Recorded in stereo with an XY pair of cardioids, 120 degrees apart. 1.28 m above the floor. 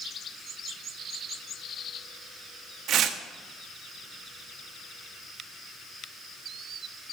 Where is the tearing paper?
60° right, 1.4 m.